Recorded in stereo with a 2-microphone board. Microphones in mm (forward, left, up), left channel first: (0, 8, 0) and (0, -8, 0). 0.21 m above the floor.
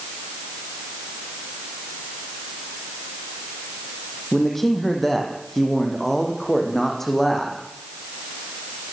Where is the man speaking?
20° left (ahead or behind), 7.5 m.